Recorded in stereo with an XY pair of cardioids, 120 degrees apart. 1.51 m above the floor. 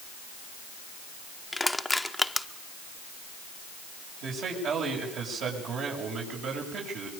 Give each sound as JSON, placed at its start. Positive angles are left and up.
{"t": 1.5, "sound": "crushing", "azimuth_deg": 5, "distance_m": 1.0}
{"t": 4.2, "sound": "a man speaking", "azimuth_deg": -65, "distance_m": 7.5}